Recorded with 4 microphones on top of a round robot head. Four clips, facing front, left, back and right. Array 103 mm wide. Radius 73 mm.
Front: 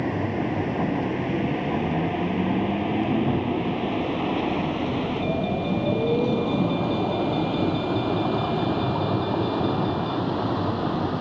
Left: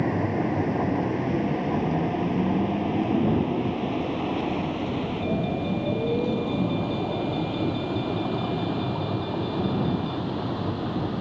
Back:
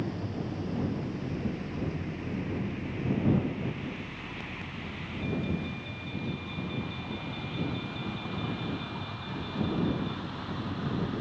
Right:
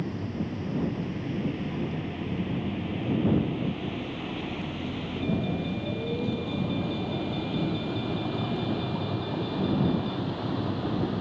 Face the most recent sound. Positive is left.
turn(degrees=5)